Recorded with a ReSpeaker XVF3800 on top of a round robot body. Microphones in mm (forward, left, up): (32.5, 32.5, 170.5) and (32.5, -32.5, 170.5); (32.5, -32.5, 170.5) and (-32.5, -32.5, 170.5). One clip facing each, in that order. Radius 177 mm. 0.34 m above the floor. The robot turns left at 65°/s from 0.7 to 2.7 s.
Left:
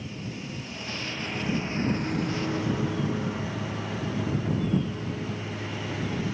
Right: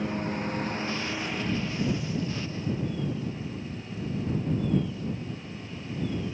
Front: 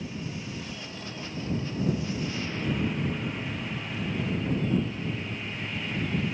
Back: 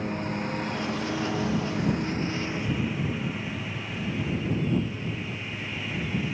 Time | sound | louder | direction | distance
0.0 | a lawn mower | right 7 dB, back 7 dB | 135° right | ?